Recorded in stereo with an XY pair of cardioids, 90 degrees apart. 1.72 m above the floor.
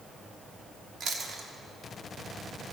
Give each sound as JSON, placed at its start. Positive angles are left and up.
{"t": 1.0, "sound": "chewing", "azimuth_deg": -60, "distance_m": 5.5}